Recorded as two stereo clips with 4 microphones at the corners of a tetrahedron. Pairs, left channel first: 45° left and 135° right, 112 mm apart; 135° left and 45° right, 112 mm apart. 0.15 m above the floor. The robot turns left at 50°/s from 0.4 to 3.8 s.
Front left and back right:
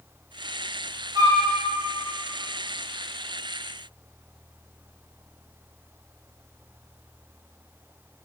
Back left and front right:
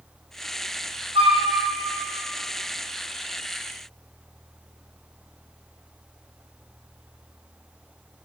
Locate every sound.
1.1 s a flute: 75° right, 0.8 m; by 1.4 s 90° right, 0.8 m